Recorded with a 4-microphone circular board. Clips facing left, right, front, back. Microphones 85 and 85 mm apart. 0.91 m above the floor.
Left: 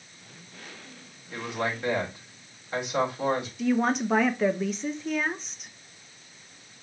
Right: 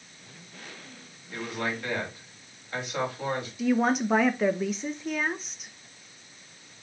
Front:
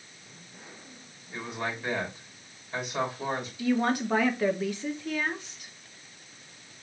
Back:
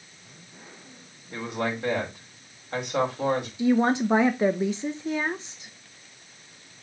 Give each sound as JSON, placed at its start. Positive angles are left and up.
{"t": 1.3, "sound": "a man speaking", "azimuth_deg": 160, "distance_m": 5.0}
{"t": 3.6, "sound": "a woman speaking", "azimuth_deg": -175, "distance_m": 0.7}